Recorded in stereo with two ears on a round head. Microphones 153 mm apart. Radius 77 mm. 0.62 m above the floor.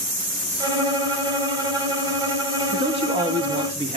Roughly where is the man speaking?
Right.